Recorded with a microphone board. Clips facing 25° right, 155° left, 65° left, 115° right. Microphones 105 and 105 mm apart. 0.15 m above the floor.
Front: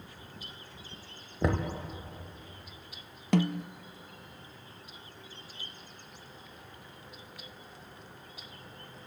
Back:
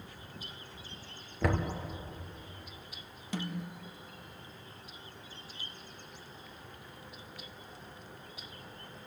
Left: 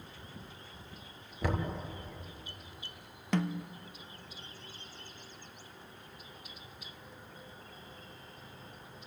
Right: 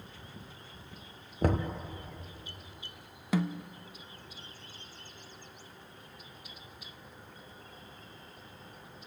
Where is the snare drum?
30° right, 0.6 m.